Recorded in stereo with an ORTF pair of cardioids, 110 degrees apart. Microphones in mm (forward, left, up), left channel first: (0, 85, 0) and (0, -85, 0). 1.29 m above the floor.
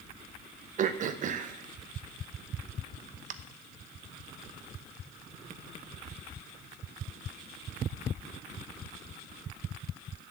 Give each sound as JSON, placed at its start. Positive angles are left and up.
{"t": 0.8, "sound": "throat clearing", "azimuth_deg": -50, "distance_m": 1.0}